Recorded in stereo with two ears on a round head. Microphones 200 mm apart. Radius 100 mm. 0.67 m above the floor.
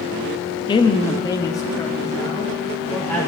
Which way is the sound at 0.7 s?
20° left (ahead or behind).